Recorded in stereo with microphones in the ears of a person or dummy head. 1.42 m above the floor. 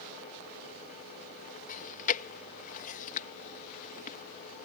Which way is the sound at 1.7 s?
45° left (ahead or behind).